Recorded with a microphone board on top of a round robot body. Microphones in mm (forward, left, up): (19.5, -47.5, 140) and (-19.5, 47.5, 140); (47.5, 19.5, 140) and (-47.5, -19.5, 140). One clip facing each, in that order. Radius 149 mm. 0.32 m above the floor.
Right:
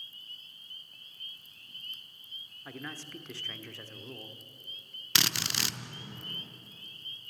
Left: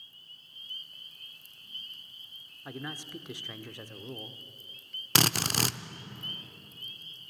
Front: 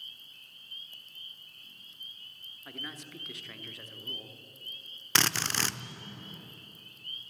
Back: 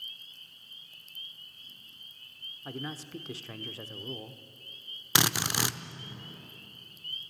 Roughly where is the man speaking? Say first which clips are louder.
Left 2 dB, back 6 dB; behind.